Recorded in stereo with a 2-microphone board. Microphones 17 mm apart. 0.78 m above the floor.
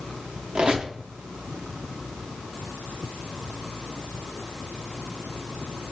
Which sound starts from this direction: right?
A squeak, at 0.6 s.